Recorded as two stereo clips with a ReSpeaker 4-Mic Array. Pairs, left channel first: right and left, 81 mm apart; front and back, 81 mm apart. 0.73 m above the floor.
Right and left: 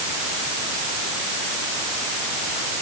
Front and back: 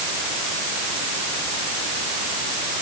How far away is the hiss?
No hiss in this recording.